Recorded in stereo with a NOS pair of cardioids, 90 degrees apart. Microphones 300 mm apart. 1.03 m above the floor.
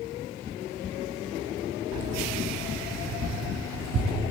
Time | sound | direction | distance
1.9 | keys jangling | 70° right | 4 m